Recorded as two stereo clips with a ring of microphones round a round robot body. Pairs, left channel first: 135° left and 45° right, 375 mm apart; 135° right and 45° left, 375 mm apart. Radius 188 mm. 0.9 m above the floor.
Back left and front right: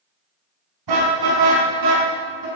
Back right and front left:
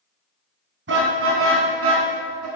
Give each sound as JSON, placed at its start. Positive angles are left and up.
{"t": 0.9, "sound": "a car horn", "azimuth_deg": -15, "distance_m": 5.0}